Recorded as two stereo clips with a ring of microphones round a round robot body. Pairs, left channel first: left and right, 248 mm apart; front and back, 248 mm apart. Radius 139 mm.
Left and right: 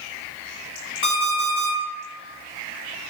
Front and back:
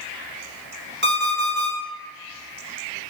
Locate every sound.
1.0 s an alarm clock: 135° left, 1.4 m